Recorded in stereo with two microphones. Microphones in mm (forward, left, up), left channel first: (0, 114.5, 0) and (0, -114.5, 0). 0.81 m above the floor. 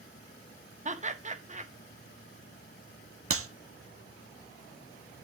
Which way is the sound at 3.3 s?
75° right (ahead or behind).